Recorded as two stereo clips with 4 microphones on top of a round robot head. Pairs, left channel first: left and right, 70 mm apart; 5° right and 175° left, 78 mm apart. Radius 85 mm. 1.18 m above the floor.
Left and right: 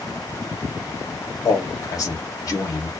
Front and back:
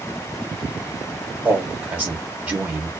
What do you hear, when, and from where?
1.4 s a man speaking: 110° left, 1.4 m